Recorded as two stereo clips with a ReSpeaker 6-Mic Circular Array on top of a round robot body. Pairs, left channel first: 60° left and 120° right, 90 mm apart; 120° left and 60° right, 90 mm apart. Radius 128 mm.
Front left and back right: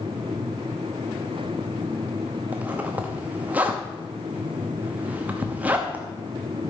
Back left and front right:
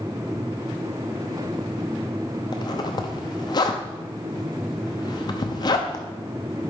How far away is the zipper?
About 0.8 m.